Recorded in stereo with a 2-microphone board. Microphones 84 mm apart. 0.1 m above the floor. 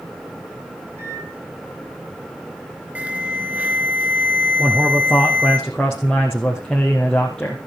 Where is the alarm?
15° right (ahead or behind), 1.9 m.